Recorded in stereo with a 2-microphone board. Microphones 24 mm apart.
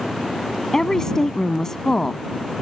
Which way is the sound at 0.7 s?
20° left (ahead or behind).